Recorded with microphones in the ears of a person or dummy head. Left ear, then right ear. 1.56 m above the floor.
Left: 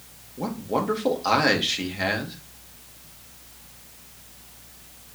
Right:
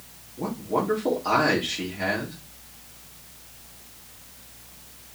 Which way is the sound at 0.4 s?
40° left (ahead or behind).